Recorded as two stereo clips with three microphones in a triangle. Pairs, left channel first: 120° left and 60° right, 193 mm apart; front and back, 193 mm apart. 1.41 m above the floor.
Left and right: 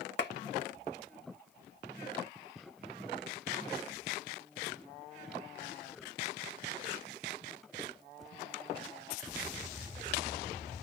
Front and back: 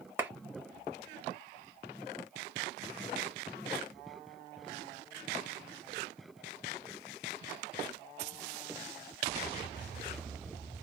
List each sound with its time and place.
0.2 s a clap: 100° left, 1.1 m